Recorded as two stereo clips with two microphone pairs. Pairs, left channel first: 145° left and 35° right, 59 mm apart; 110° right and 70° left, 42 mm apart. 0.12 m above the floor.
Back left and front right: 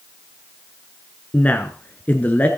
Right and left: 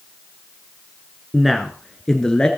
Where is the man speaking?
145° left, 1.1 m; by 2.5 s 170° right, 1.3 m.